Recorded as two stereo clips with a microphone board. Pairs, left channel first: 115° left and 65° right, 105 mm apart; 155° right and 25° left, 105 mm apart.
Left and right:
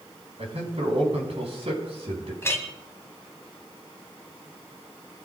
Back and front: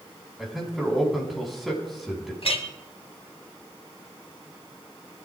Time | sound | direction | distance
0.4 | a man speaking | 65° right | 4.5 m
2.4 | a clink | straight behind | 1.5 m